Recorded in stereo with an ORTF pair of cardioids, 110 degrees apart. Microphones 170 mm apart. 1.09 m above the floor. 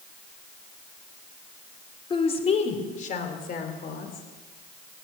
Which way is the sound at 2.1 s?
30° left.